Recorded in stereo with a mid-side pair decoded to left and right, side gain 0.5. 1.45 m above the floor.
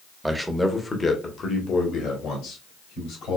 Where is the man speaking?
10° right, 1.2 m; by 3.4 s 70° left, 3 m.